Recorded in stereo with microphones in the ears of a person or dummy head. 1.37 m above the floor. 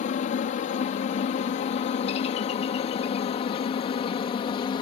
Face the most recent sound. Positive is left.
turn(degrees=25)  # may be behind; listen again after turning